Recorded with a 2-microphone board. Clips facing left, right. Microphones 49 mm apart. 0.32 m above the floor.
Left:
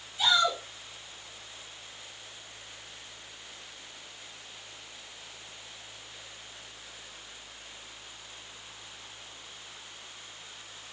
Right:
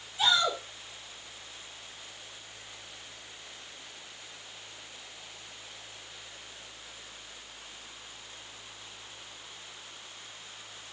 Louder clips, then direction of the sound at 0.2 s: Left 1 dB; 15° right (ahead or behind).